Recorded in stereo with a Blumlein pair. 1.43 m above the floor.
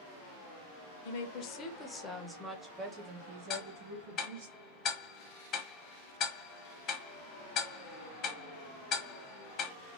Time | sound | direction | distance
1.1 | a woman speaking | 55° left | 0.7 m
3.5 | ticking | 35° left | 0.8 m